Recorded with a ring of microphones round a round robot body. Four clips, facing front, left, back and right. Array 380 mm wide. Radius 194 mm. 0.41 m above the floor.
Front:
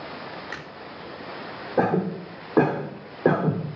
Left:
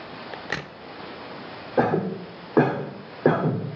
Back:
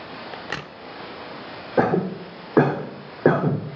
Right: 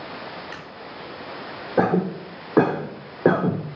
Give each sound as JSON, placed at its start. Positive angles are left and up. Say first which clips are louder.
{"t": 0.3, "sound": "a crack", "louder": "left 3 dB, back 3 dB", "azimuth_deg": 125, "distance_m": 0.6}
{"t": 1.8, "sound": "a cough", "louder": "right 1 dB, back 2 dB", "azimuth_deg": -140, "distance_m": 1.0}